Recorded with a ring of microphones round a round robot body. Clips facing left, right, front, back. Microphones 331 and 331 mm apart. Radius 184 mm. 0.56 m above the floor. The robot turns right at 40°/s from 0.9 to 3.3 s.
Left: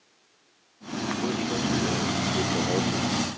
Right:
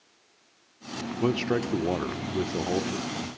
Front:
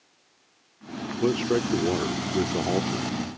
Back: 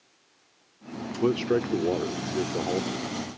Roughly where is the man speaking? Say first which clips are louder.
Right 4 dB, even; right.